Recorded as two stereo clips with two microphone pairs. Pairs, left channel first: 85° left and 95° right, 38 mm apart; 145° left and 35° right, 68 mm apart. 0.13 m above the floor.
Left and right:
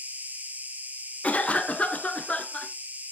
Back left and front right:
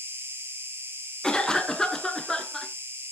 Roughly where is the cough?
Left.